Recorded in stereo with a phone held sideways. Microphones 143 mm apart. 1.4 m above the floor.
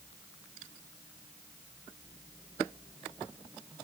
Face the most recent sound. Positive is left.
No sound to turn to.